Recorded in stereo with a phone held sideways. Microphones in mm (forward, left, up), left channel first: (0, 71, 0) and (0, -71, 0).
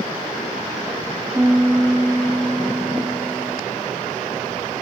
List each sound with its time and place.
1.4 s a piano: 10° right (ahead or behind), 1.8 m